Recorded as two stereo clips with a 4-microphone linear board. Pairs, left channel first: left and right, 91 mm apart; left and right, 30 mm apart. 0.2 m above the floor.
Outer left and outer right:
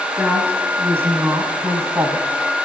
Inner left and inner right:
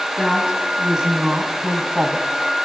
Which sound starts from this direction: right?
A woman speaking, at 0.2 s.